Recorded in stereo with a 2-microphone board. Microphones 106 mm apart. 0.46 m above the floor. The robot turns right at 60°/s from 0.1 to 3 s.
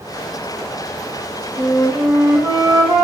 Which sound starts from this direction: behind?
A flute, at 1.6 s.